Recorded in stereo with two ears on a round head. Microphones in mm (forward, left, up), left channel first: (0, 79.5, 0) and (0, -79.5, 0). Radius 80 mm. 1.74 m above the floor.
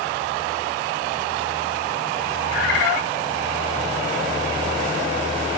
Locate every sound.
2.5 s a bird: 75° left (ahead or behind), 6.5 m